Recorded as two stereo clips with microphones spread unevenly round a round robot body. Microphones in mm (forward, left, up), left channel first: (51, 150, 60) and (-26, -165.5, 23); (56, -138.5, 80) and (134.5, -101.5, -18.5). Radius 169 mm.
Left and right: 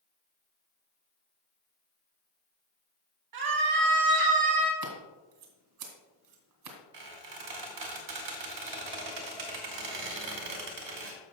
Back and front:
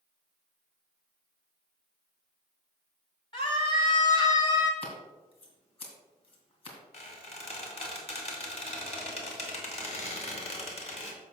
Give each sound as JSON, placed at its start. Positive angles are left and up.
{"t": 3.3, "sound": "a scream", "azimuth_deg": -105, "distance_m": 2.5}
{"t": 4.8, "sound": "scissors", "azimuth_deg": -135, "distance_m": 2.5}
{"t": 6.9, "sound": "a squeak", "azimuth_deg": -120, "distance_m": 2.5}